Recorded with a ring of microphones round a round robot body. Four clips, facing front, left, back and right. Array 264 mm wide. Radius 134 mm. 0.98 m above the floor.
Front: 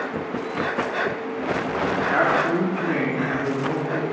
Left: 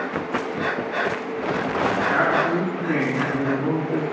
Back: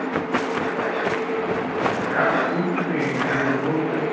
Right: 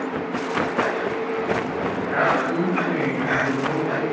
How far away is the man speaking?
About 2.0 m.